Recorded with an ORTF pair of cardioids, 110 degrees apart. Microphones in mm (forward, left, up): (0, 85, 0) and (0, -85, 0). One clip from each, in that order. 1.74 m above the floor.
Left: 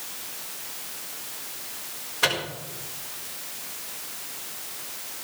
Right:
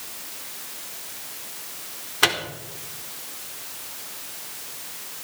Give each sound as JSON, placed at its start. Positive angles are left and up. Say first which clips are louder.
{"t": 2.2, "sound": "a microwave", "louder": "right 3 dB", "azimuth_deg": -45, "distance_m": 4.0}